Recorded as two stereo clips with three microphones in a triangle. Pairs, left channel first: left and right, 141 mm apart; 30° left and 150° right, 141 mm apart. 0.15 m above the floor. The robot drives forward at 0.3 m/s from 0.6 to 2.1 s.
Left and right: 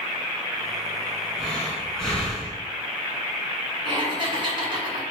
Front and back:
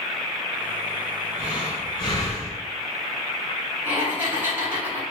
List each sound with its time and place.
1.4 s breathing: 5° left, 2 m
3.9 s laughter: 85° right, 1.9 m